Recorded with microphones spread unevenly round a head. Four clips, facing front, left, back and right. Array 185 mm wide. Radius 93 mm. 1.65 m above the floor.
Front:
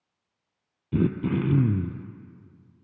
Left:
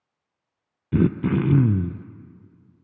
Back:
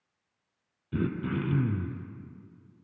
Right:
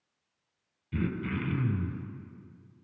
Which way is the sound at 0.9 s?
70° left.